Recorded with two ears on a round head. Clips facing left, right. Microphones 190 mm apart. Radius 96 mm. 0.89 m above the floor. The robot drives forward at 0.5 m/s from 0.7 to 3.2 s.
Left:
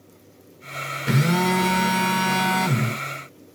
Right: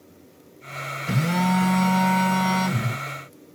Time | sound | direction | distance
1.1 | a phone buzzing | 75° left (ahead or behind) | 1.2 m